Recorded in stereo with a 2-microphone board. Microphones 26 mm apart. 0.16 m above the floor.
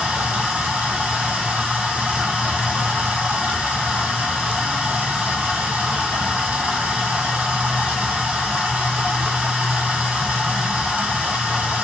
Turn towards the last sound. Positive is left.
turn(degrees=-70)  # may be behind; listen again after turning